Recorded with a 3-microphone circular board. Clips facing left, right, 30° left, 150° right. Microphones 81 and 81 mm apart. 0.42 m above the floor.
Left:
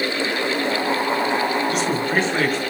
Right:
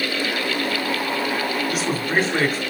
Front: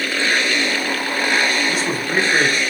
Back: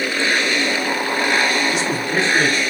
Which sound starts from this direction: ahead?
A man speaking, at 1.7 s.